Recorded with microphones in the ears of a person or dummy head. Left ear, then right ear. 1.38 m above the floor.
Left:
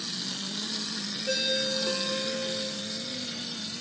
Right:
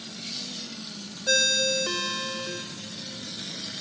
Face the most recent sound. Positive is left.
turn(degrees=-70)  # may be behind; listen again after turning